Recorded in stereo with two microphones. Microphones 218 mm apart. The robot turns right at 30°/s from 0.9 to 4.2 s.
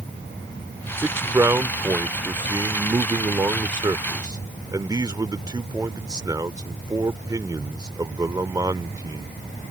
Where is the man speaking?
10° right (ahead or behind); by 9.3 s 20° right (ahead or behind).